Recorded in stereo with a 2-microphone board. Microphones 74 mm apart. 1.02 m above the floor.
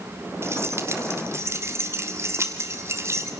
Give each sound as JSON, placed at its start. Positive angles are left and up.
{"t": 0.4, "sound": "keys jangling", "side_deg": -35, "distance_m": 1.9}